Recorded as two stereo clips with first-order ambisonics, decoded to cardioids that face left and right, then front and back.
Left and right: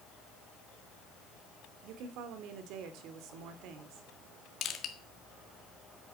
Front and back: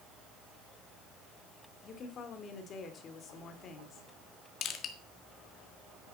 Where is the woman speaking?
60° right, 2 m.